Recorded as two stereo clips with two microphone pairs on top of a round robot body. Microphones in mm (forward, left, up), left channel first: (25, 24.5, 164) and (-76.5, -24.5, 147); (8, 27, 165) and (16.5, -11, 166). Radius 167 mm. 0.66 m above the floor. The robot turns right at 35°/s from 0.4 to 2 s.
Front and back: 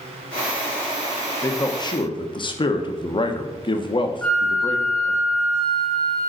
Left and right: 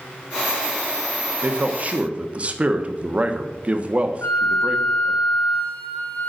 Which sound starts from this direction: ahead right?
A man speaking, at 1.4 s.